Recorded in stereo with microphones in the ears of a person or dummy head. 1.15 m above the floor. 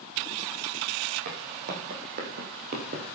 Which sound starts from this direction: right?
Footsteps, at 1.2 s.